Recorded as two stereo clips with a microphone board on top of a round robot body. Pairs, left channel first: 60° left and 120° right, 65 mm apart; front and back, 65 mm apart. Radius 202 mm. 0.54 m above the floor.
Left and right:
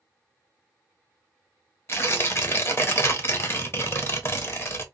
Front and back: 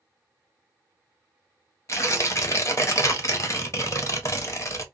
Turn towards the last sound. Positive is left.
turn(degrees=25)